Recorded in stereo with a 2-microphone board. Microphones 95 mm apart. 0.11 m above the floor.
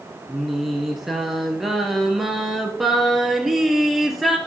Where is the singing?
Centre (ahead or behind), 1.5 m.